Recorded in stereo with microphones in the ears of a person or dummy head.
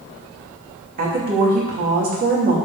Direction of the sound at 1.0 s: 45° right (ahead or behind).